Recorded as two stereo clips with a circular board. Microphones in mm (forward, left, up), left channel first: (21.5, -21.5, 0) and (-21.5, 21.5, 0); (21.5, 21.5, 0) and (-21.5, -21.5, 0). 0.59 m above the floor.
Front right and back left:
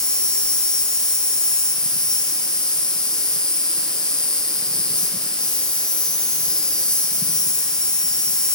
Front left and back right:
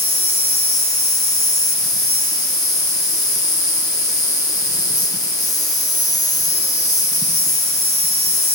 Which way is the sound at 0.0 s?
30° left.